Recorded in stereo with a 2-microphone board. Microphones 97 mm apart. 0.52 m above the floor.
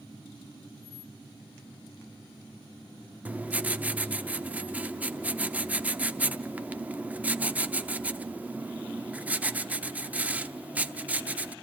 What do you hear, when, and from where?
3.2 s writing: 15° right (ahead or behind), 0.7 m